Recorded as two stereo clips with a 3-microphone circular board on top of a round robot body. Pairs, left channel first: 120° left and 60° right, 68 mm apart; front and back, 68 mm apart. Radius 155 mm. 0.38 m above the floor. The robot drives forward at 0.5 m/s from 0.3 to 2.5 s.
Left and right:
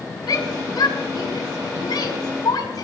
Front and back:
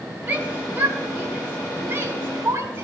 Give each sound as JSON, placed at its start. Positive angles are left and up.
{"t": 0.3, "sound": "a shout", "azimuth_deg": 115, "distance_m": 5.0}